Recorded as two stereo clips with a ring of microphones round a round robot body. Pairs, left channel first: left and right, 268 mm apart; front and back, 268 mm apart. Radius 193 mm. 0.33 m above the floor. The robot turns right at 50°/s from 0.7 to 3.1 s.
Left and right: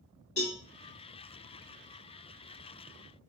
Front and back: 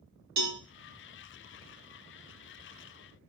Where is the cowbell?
155° left, 0.7 m.